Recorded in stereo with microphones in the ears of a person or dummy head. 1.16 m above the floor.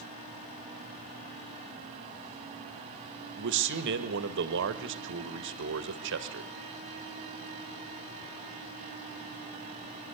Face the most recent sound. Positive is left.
turn(degrees=-65)  # may be behind; listen again after turning